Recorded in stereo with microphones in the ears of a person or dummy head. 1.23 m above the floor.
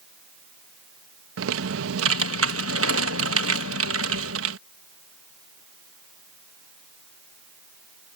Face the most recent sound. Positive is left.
turn(degrees=-85)